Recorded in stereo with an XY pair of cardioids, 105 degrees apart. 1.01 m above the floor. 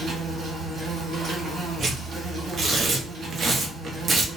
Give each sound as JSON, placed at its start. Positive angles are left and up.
{"t": 0.0, "sound": "an insect", "azimuth_deg": -65, "distance_m": 1.9}
{"t": 1.8, "sound": "tearing paper", "azimuth_deg": -45, "distance_m": 0.7}